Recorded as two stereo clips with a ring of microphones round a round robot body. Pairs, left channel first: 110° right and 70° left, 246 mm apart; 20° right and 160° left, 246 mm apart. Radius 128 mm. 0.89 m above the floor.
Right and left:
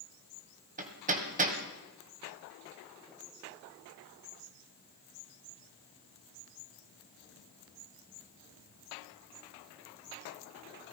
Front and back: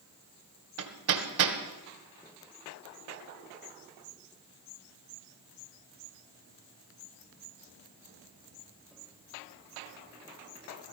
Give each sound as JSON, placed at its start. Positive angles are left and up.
{"t": 0.8, "sound": "hammering", "azimuth_deg": 125, "distance_m": 1.6}